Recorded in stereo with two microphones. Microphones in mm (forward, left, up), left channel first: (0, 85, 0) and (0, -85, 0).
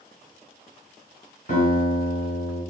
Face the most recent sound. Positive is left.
turn(degrees=50)  # may be behind; listen again after turning